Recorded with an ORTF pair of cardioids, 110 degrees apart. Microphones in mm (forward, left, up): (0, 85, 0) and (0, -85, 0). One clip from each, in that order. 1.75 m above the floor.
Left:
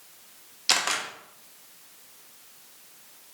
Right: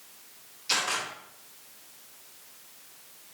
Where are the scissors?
I don't hear scissors.